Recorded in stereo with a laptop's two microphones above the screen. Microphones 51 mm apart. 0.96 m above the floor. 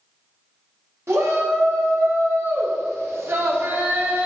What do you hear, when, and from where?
1.1 s a shout: 65° right (ahead or behind), 2 m; by 4.3 s 40° right (ahead or behind), 1.3 m